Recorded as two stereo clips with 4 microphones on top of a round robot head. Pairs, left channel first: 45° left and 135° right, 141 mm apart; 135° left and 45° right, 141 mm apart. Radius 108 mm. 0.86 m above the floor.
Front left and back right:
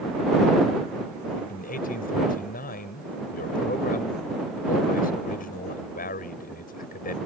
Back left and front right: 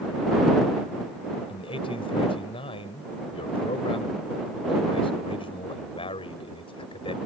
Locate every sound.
1.5 s a man speaking: 75° left